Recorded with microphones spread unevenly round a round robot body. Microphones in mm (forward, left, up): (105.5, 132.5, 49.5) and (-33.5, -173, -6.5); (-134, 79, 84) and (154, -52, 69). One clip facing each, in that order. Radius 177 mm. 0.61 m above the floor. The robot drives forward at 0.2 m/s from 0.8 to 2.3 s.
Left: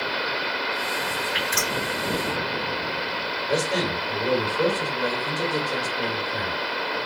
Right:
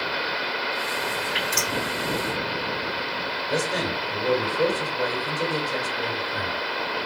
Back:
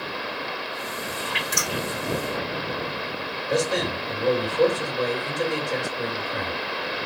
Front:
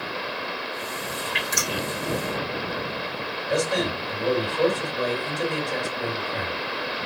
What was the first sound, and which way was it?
Dripping, 135° left.